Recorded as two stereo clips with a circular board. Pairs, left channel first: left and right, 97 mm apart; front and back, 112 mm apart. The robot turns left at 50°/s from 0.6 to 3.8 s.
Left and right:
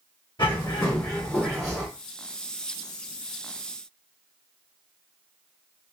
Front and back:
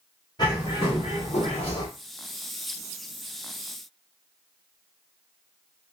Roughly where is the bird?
Ahead left.